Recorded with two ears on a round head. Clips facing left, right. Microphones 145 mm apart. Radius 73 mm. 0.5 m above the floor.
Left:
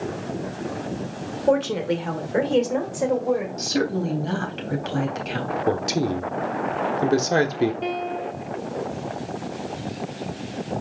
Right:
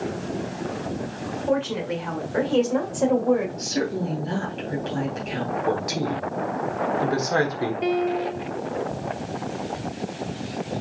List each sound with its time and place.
1.5 s a woman speaking: 55° left (ahead or behind), 2.0 m; by 3.5 s 5° right (ahead or behind), 2.5 m
3.6 s a woman speaking: 75° left (ahead or behind), 3 m
5.7 s a man speaking: 30° left (ahead or behind), 1.1 m
7.8 s a piano: 10° right (ahead or behind), 0.9 m